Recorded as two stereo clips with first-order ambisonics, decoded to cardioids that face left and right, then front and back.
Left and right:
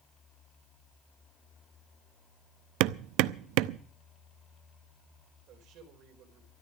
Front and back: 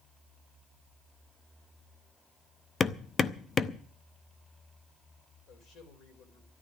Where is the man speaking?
45° right, 5 m.